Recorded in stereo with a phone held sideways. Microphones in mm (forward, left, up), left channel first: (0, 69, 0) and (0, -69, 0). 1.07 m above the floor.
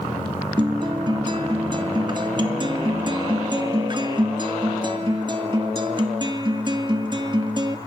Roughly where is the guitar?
Right.